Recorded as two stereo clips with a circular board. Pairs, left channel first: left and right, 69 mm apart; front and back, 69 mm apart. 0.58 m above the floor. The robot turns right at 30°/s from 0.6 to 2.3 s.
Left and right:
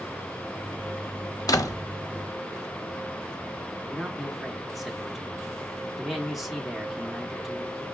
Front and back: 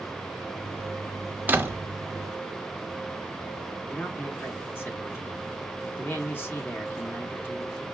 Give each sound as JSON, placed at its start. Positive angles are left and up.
{"t": 1.5, "sound": "a door slam", "azimuth_deg": 115, "distance_m": 0.7}
{"t": 3.9, "sound": "a man speaking", "azimuth_deg": -5, "distance_m": 1.0}